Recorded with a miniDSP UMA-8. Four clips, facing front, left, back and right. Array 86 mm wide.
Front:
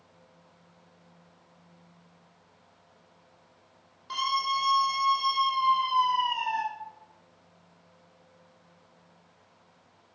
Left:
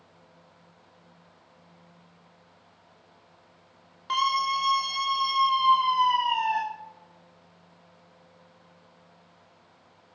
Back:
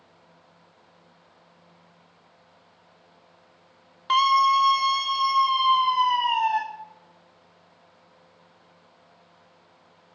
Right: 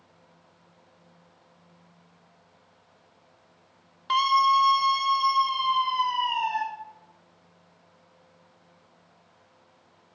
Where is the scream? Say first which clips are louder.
Right 5 dB, back 10 dB; straight behind, 1.7 m; by 6.6 s 145° left, 3 m.